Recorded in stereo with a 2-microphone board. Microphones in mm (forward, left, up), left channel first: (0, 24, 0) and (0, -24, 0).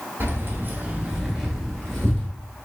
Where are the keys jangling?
45° right (ahead or behind), 1.5 m; by 2.3 s 15° left (ahead or behind), 2.5 m.